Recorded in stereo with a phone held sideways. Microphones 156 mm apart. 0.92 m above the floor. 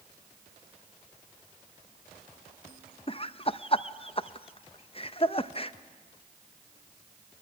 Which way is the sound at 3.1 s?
35° left (ahead or behind).